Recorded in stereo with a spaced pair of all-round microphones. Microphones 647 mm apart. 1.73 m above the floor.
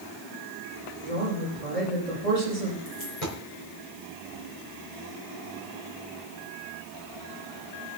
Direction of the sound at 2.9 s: 60° left (ahead or behind).